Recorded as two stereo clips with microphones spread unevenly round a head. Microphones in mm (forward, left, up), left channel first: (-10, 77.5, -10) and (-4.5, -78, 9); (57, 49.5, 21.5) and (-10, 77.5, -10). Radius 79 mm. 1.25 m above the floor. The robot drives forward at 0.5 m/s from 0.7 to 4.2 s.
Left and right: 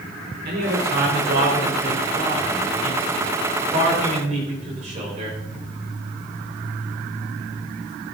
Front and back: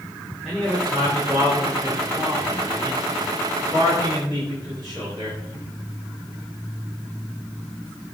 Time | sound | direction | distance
0.5 | a man speaking | 120° right | 4 m